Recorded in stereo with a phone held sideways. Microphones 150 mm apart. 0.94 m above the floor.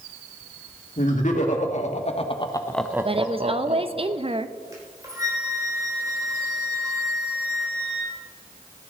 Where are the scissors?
No scissors in this recording.